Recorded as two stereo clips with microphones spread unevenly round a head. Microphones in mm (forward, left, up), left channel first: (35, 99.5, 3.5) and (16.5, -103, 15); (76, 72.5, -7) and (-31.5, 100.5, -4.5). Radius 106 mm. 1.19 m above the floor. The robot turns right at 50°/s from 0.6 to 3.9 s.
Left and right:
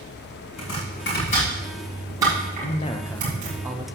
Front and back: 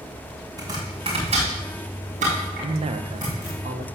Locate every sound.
0.6 s chopping: 110° left, 6.5 m; by 3.6 s 105° right, 6.5 m
2.6 s a man speaking: 135° left, 1.1 m; by 3.9 s 165° right, 1.1 m